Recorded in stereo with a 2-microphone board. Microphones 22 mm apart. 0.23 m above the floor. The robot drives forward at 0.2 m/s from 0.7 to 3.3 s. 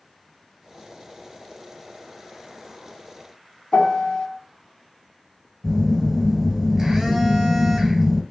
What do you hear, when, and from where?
3.7 s a piano: 55° left (ahead or behind), 0.5 m
5.6 s a phone buzzing: 15° right (ahead or behind), 1.5 m